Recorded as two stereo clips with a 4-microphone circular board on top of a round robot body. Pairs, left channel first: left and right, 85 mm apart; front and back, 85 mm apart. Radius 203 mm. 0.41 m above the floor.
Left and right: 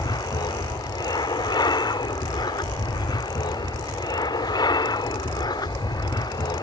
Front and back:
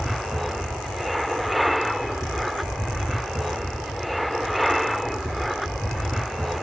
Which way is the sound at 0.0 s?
90° left.